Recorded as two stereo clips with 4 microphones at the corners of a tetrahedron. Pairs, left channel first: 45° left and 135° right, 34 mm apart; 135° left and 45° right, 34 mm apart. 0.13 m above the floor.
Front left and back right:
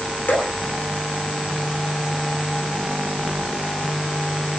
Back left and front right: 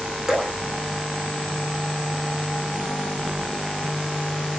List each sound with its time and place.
0.3 s dripping: 30° left, 2 m